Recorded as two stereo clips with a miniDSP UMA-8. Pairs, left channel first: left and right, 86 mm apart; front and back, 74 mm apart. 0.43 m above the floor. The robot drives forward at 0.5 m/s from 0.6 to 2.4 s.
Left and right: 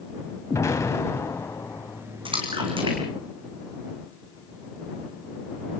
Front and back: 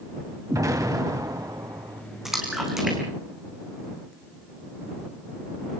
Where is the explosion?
140° left, 2.5 m; by 2.0 s 150° left, 3 m.